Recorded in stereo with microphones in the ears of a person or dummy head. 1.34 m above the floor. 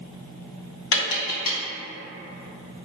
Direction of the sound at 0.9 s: 65° left (ahead or behind).